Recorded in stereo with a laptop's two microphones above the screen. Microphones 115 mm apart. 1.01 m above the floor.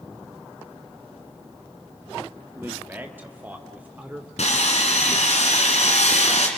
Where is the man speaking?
20° right (ahead or behind), 1.2 m; by 4.3 s 15° right (ahead or behind), 2.5 m.